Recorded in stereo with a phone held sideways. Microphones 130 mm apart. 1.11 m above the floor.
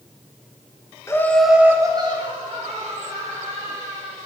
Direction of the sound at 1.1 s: 20° left (ahead or behind).